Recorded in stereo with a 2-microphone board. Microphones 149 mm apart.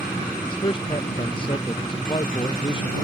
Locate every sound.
0.5 s a man speaking: 35° left (ahead or behind)